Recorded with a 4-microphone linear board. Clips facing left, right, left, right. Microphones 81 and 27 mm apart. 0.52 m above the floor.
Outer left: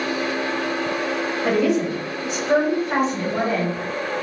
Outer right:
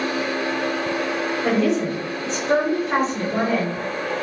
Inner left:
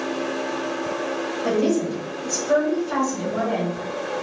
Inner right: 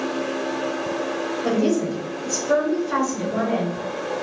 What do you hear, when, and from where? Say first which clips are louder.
1.4 s a woman speaking: outer left 1 dB, even; 5° left (ahead or behind), 1.3 m; by 3.8 s 15° left (ahead or behind), 1.8 m